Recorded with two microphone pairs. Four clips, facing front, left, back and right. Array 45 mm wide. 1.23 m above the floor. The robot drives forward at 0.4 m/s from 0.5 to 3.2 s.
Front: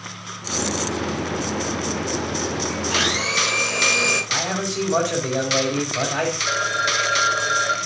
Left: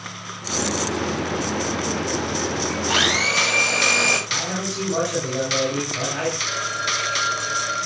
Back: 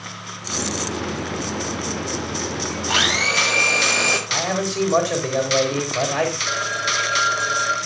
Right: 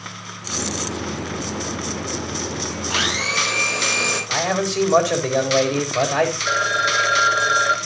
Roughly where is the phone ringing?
Right.